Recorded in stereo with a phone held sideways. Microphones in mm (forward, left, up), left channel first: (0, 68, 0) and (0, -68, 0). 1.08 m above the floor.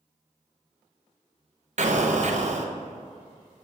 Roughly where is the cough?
No cough in this recording.